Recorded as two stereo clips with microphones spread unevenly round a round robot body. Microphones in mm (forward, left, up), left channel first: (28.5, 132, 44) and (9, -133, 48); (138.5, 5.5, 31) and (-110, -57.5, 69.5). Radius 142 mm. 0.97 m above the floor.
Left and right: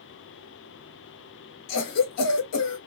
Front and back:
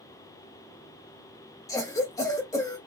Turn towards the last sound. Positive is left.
turn(degrees=85)